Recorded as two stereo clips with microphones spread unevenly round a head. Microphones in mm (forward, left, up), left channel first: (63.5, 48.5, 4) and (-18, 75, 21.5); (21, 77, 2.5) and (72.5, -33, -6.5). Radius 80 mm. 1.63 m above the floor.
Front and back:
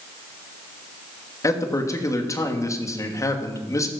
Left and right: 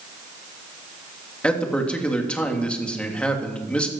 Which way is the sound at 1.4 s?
35° left.